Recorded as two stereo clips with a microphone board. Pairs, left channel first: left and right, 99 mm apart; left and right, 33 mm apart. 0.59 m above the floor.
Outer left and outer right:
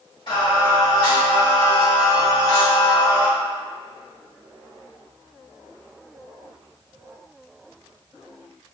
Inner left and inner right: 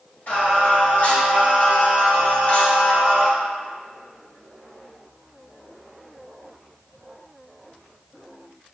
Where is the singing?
60° left (ahead or behind), 1.9 m.